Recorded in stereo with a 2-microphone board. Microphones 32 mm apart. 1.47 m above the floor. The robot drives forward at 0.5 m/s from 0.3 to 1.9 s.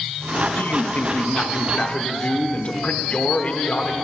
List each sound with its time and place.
0.6 s a man speaking: 75° left (ahead or behind), 0.7 m; by 4.0 s 35° left (ahead or behind), 1.1 m